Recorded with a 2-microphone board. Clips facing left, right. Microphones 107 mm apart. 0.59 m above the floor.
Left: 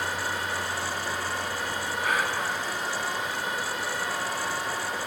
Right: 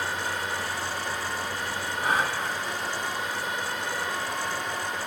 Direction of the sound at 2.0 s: 30° right (ahead or behind).